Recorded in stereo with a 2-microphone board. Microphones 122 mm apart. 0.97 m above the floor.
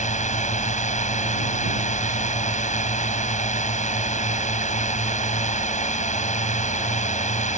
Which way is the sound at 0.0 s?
80° left.